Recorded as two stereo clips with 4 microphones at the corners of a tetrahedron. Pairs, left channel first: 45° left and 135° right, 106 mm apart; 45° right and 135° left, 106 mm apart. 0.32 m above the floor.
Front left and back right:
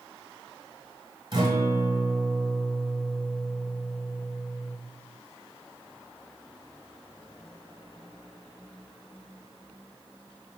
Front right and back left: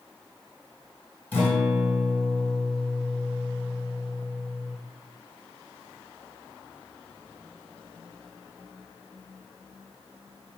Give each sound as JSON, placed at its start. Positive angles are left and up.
{"t": 1.3, "sound": "a guitar", "azimuth_deg": -115, "distance_m": 1.3}